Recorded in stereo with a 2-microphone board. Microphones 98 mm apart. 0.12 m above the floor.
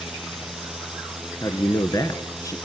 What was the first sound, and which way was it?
A man speaking, 40° left (ahead or behind).